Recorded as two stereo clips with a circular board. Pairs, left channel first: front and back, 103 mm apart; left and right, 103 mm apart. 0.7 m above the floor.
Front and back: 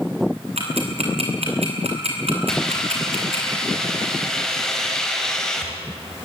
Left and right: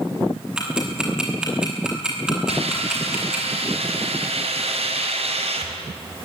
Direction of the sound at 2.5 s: 85° right.